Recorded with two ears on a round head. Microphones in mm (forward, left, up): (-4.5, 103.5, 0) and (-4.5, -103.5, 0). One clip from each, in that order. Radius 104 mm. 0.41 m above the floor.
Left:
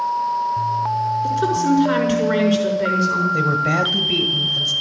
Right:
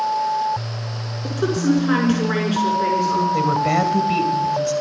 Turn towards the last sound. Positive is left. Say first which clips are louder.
# even
turn(degrees=-10)  # may be behind; listen again after turning